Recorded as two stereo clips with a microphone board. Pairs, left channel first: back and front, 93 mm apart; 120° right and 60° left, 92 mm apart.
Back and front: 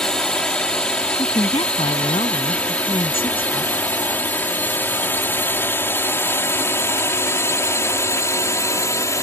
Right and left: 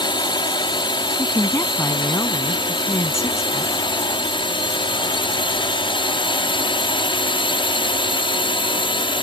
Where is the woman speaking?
Straight behind.